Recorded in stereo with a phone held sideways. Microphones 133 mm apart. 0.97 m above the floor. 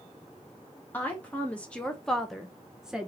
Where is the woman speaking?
15° left (ahead or behind), 1.0 m; by 3.1 s 5° right (ahead or behind), 0.9 m.